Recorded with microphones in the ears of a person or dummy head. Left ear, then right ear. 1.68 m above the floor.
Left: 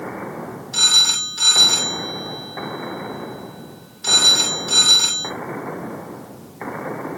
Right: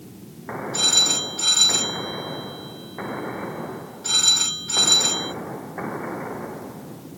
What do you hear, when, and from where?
0.7 s a phone ringing: 55° left (ahead or behind), 2.5 m